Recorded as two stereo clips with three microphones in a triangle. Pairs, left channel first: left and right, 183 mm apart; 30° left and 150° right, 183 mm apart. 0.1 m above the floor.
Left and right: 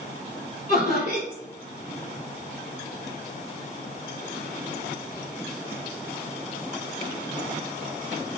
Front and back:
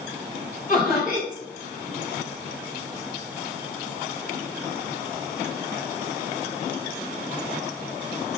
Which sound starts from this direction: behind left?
Laughter, at 0.7 s.